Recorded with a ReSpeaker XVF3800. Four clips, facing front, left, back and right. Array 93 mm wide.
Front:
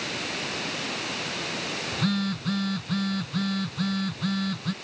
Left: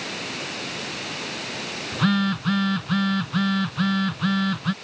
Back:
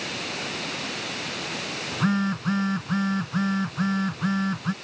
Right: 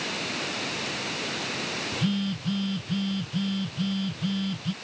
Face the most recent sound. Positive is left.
turn(degrees=115)